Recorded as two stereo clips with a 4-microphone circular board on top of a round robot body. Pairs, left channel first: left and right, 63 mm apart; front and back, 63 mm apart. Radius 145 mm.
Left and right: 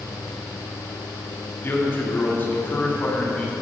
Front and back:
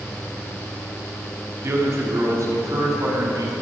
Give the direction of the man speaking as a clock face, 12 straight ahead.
7 o'clock.